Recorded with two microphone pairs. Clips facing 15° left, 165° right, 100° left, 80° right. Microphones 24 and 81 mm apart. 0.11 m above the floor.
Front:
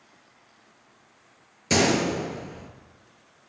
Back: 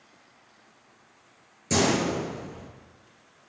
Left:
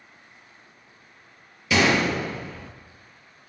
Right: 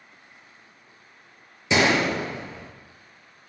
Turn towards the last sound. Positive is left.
turn(degrees=-20)